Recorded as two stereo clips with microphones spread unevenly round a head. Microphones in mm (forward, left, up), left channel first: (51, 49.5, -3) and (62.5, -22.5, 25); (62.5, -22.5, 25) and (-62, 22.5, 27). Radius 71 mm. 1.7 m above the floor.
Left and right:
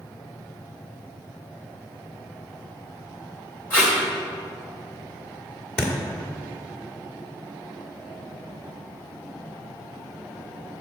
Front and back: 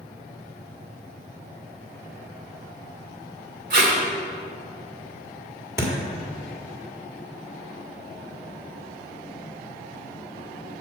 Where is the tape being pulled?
175° left, 2 m.